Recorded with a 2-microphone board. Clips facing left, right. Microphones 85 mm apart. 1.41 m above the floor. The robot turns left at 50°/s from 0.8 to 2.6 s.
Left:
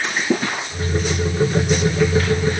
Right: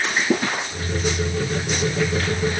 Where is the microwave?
I don't hear a microwave.